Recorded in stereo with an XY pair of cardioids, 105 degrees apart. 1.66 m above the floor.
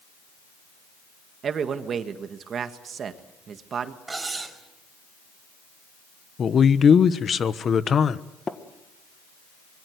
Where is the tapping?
30° left, 1.9 m.